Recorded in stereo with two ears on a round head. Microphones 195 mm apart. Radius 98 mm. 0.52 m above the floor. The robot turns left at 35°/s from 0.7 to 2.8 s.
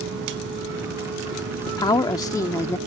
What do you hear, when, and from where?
1.7 s a woman speaking: 20° left (ahead or behind); by 2.8 s 10° left (ahead or behind)